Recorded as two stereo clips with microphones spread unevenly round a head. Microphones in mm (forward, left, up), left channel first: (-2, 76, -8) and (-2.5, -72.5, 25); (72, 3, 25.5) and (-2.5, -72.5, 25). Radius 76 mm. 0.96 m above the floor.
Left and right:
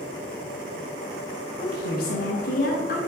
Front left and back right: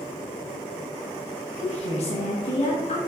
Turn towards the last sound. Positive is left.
turn(degrees=75)